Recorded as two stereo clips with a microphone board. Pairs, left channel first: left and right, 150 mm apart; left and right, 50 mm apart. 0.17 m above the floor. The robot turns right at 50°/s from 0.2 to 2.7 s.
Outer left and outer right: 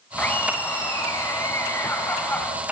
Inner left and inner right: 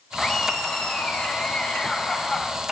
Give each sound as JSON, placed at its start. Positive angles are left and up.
{"t": 0.2, "sound": "laughter", "side_deg": 10, "distance_m": 1.1}